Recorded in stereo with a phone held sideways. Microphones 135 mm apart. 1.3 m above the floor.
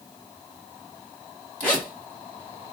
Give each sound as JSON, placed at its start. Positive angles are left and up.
{"t": 1.6, "sound": "a zipper", "side_deg": 10, "distance_m": 1.9}